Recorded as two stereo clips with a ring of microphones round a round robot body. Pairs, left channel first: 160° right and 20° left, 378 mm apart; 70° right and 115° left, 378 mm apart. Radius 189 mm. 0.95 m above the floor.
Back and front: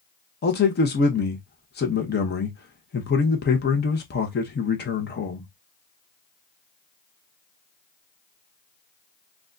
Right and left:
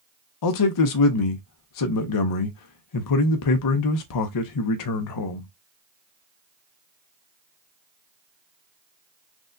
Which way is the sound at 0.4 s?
95° right.